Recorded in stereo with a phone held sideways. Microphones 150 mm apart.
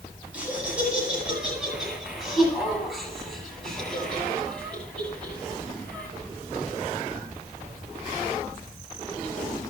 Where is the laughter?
10° right (ahead or behind), 8.5 m; by 6.1 s 10° left (ahead or behind), 9.5 m.